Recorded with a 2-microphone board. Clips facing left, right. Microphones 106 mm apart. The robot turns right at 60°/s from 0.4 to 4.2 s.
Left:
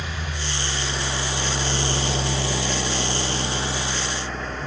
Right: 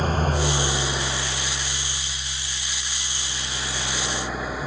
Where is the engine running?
40° right; by 4.7 s 175° right.